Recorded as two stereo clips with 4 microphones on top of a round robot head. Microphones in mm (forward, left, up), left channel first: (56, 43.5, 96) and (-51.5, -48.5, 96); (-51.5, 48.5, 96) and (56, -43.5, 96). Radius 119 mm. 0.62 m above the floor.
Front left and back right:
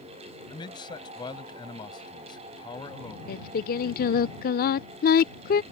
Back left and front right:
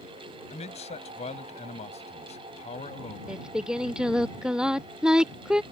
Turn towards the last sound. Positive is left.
turn(degrees=45)